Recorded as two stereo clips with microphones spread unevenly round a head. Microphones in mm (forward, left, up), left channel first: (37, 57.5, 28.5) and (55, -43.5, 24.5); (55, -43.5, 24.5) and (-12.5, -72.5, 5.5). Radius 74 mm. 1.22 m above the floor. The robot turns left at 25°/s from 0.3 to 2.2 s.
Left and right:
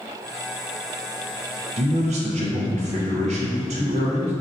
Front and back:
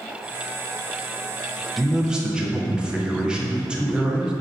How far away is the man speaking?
About 0.7 m.